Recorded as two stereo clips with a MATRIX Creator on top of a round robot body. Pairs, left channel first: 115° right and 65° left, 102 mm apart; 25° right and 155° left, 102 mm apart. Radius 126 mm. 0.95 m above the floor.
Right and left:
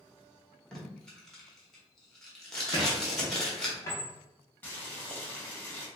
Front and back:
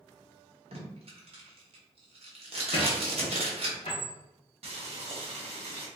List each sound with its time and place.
0.7 s tape being pulled: 165° left, 1.3 m
2.7 s a squeak: 50° right, 0.5 m
4.6 s boiling: 175° left, 1.3 m